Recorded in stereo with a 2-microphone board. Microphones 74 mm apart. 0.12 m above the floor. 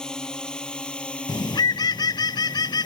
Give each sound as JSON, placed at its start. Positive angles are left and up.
{"t": 0.0, "sound": "a drone", "side_deg": 10}
{"t": 1.3, "sound": "a bird", "side_deg": 70}